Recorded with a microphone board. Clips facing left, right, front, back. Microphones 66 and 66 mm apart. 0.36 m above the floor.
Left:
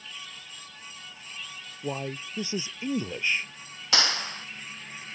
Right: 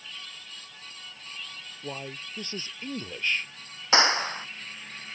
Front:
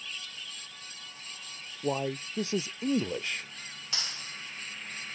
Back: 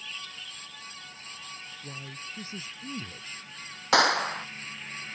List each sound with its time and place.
1.8 s a man speaking: 15° left
3.9 s a clap: 155° right